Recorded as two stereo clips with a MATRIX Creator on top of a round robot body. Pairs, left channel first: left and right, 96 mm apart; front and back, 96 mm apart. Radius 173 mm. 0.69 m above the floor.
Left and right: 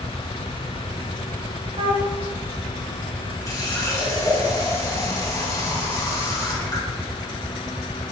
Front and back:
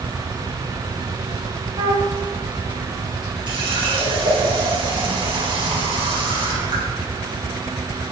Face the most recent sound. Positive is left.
turn(degrees=145)